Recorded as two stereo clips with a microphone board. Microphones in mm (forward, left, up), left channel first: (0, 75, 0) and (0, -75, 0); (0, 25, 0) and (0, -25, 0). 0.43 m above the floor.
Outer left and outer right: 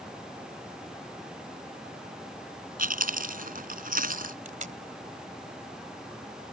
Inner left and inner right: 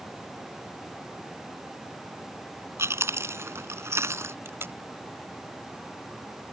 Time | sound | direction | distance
2.8 | chewing | 65° right (ahead or behind) | ?
4.5 | tape being pulled | 55° right (ahead or behind) | ?